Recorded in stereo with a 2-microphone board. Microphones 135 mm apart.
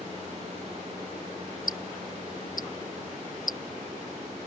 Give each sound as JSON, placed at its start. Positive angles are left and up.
{"t": 1.7, "sound": "ticking", "side_deg": 80}